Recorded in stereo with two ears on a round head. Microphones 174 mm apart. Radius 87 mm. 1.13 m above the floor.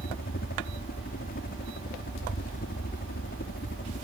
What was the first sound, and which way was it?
A helicopter, 50° left (ahead or behind).